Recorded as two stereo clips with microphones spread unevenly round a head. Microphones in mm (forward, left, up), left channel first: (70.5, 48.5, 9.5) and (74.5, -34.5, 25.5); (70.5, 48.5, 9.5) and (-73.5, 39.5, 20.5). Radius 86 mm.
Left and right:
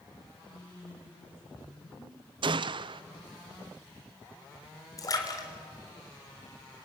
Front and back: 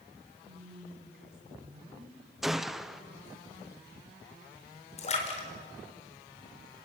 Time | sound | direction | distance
0.4 | a woman speaking | 175° left | 9 m
2.4 | a gunshot | 85° right | 0.5 m
5.0 | a splash | 45° left | 4 m